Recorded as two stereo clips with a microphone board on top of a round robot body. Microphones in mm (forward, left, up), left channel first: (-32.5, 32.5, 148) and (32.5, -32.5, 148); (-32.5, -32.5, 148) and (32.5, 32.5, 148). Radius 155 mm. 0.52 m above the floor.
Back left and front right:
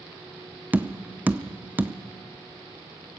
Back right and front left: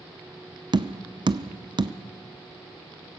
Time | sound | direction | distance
0.7 | tapping | 25° left | 1.0 m